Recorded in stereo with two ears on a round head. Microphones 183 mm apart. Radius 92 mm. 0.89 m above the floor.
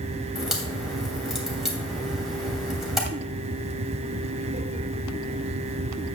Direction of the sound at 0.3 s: Centre (ahead or behind).